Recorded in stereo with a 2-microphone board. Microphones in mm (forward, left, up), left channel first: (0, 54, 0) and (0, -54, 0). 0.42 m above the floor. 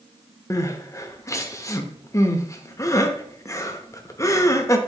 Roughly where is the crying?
Left.